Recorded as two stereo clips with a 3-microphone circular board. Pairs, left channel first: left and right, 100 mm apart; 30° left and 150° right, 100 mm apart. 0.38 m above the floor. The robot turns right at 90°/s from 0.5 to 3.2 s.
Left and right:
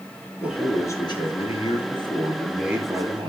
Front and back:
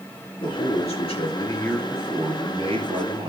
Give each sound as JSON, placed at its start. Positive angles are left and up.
{"t": 0.4, "sound": "a man speaking", "azimuth_deg": -5, "distance_m": 5.0}